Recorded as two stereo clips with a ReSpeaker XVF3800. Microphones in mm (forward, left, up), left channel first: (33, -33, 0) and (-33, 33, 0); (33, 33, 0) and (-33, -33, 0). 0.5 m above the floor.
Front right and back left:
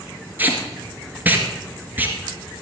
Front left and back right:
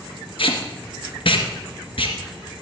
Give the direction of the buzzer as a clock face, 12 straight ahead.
No buzzer in this recording.